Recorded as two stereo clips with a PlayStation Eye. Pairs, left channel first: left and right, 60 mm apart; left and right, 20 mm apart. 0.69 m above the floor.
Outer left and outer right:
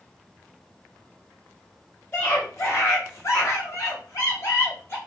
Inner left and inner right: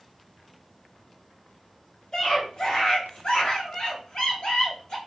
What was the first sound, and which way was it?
A scream, 40° left (ahead or behind).